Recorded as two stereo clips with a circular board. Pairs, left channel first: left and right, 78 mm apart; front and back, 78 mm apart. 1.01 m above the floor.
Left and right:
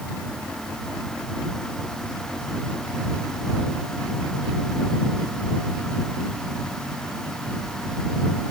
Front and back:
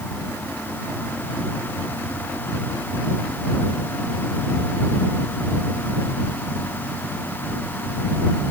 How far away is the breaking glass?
I don't hear breaking glass.